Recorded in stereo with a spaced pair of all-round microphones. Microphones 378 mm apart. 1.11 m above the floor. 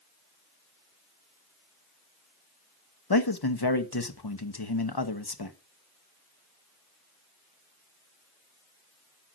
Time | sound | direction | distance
3.1 | a man speaking | 75° left (ahead or behind) | 1.2 m